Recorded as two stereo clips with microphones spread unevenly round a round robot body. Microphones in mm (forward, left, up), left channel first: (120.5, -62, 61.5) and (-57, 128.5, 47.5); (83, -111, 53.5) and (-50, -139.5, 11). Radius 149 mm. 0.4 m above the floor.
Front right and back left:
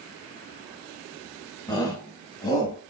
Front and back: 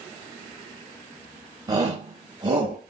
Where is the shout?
120° right, 2.5 m.